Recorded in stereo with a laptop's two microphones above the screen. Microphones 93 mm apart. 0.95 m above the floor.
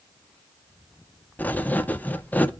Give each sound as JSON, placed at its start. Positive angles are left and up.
{"t": 1.4, "sound": "writing", "side_deg": 20, "distance_m": 0.6}